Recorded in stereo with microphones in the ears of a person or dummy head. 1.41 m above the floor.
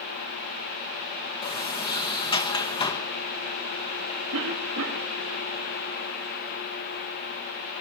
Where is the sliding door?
20° left (ahead or behind), 1.1 m.